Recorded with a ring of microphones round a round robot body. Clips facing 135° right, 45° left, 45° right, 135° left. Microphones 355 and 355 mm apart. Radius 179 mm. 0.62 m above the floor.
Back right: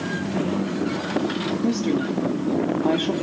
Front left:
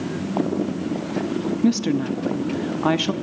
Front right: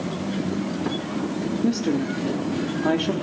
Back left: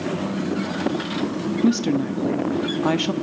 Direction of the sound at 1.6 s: 85° left.